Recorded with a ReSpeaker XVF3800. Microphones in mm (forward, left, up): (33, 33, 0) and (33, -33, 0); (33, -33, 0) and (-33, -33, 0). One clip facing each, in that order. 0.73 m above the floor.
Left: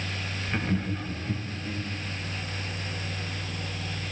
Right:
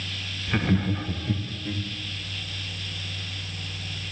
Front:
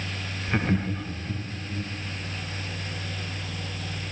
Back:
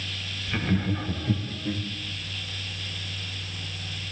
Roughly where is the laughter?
Ahead right.